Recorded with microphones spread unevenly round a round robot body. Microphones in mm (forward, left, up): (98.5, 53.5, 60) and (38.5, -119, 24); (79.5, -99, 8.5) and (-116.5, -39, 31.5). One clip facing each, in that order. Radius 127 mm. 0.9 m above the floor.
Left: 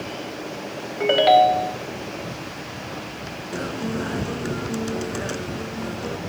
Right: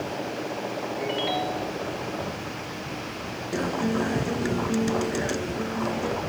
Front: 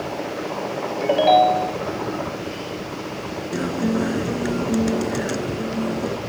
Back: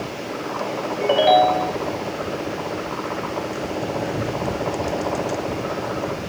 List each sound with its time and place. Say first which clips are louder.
1.0 s a ringtone: left 15 dB, even; 80° left
3.5 s a guitar: right 2 dB, front 4 dB; 35° right